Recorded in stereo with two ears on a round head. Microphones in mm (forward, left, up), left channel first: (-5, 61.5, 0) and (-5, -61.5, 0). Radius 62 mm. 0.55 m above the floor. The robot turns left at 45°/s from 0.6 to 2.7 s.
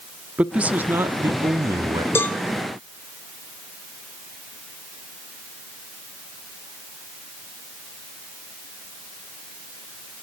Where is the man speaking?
10° right (ahead or behind), 1.0 m; by 2.0 s 25° right (ahead or behind), 1.0 m.